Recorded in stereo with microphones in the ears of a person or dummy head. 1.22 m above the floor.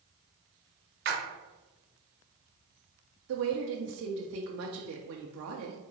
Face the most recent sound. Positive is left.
turn(degrees=-75)  # may be behind; listen again after turning